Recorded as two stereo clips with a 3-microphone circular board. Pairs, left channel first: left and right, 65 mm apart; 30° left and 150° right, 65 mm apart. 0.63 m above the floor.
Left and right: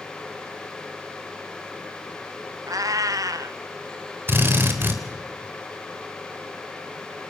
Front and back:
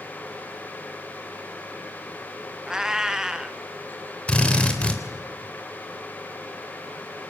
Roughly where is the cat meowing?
Right.